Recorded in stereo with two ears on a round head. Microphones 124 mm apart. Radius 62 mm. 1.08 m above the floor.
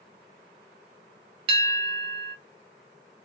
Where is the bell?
40° right (ahead or behind), 0.7 m.